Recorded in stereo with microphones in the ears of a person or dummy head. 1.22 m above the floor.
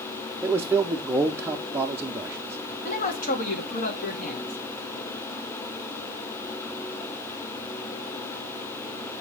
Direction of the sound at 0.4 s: 10° right (ahead or behind).